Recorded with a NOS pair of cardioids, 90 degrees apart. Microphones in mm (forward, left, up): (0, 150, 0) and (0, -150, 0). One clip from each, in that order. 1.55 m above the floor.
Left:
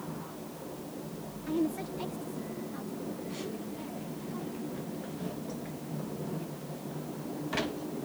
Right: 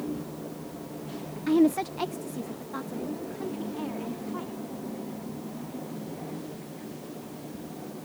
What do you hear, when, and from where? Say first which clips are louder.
1.5 s a woman speaking: right 9 dB; 60° right